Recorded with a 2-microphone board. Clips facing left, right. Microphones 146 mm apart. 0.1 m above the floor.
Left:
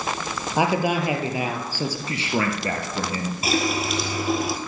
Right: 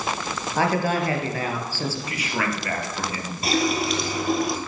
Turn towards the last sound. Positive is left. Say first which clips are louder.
# right 2 dB
turn(degrees=0)  # may be behind; listen again after turning